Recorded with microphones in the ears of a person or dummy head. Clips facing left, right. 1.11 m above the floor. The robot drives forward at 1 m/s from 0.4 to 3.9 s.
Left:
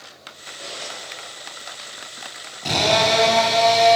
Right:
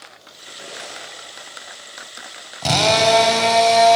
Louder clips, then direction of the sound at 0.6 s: Even; 30° right (ahead or behind).